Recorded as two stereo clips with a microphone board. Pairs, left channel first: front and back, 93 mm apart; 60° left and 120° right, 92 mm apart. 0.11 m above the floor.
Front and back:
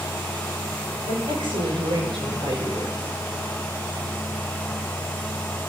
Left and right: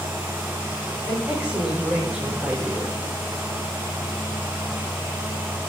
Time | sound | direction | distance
1.1 | a woman speaking | 170° left | 8.5 m